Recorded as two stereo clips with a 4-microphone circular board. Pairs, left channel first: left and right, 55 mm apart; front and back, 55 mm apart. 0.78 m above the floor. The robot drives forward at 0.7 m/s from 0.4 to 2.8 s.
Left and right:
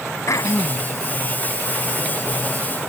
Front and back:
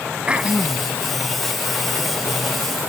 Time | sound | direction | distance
0.3 | throat clearing | 110° left | ?